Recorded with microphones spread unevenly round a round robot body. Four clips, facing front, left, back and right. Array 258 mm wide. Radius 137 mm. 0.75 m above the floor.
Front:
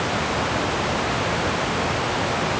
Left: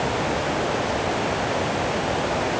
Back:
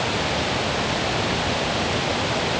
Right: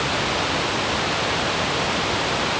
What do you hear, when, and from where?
Only background noise.